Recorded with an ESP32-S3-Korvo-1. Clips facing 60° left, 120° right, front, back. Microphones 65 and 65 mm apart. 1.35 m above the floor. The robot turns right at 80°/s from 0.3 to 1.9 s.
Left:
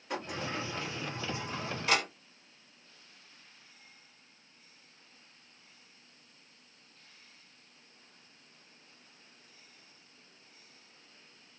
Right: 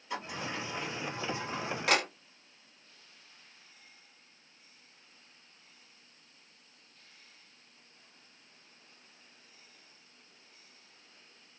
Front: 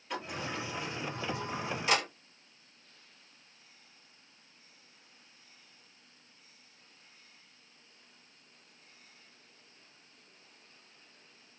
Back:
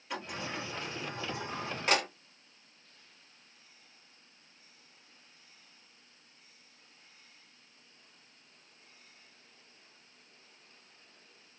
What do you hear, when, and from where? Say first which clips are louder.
0.1 s a sliding door: left 1 dB, front 1 dB; 95° left, 1.6 m; by 2.1 s 140° right, 1.6 m